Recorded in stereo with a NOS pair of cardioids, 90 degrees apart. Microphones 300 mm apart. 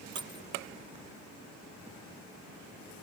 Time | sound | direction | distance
0.1 | keys jangling | 15° right | ?